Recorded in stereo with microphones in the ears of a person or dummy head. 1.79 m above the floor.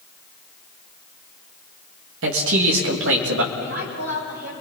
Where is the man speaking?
80° right, 3 m.